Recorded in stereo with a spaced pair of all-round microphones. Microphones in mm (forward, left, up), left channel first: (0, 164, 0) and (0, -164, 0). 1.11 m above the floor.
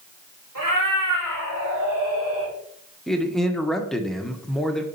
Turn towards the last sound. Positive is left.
turn(degrees=0)  # may be behind; listen again after turning